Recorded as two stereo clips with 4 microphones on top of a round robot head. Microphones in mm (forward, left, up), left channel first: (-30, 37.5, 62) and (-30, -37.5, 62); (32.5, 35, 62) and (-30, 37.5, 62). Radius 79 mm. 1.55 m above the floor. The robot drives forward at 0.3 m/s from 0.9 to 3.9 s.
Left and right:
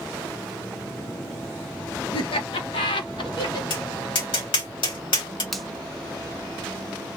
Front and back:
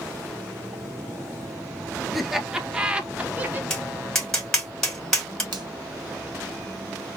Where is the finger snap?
Straight behind, 1.0 m.